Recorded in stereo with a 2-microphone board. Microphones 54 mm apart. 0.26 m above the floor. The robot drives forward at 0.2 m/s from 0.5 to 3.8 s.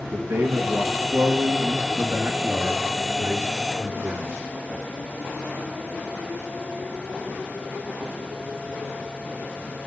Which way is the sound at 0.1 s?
65° right (ahead or behind).